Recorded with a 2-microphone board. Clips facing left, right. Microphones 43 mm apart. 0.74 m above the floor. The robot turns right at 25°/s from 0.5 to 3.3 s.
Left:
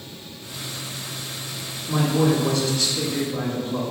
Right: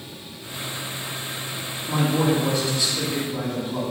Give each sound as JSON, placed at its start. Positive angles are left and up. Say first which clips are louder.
{"t": 1.9, "sound": "a man speaking", "louder": "left 1 dB", "azimuth_deg": -40, "distance_m": 1.3}